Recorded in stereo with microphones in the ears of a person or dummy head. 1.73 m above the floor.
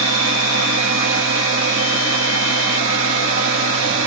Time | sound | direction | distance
0.0 | a machine running | 70° right (ahead or behind) | 0.8 m